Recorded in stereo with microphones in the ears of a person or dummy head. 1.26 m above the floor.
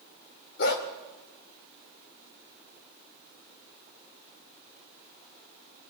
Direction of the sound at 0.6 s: 70° left (ahead or behind).